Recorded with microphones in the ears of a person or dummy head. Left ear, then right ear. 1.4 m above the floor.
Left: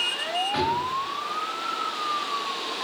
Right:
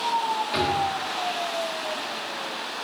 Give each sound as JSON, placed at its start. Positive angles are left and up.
{"t": 0.5, "sound": "a drawer", "side_deg": -20, "distance_m": 3.5}